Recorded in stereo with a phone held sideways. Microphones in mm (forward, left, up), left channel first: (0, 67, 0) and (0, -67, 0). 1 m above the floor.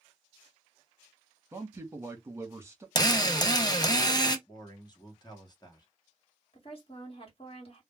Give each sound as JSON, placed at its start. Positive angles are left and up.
{"t": 1.5, "sound": "a man speaking", "side_deg": -20, "distance_m": 0.9}
{"t": 3.0, "sound": "a drill", "side_deg": 30, "distance_m": 0.6}
{"t": 4.5, "sound": "a man speaking", "side_deg": 30, "distance_m": 0.8}
{"t": 6.5, "sound": "a woman speaking", "side_deg": 45, "distance_m": 1.2}